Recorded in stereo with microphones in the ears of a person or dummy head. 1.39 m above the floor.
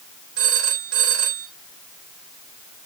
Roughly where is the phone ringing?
Right.